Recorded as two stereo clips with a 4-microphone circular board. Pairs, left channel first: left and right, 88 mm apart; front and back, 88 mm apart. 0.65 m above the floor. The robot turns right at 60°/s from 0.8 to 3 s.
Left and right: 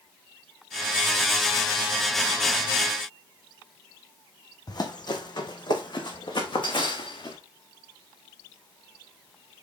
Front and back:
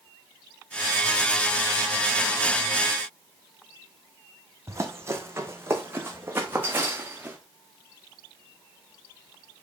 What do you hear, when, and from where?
4.7 s running footsteps: 125° left, 1.9 m; by 7.4 s 110° left, 3 m